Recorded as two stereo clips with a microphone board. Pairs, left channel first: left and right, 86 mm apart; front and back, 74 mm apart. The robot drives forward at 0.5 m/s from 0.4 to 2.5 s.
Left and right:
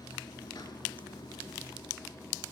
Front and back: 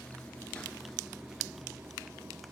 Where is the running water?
65° left, 0.8 m; by 2.5 s 140° left, 1.0 m.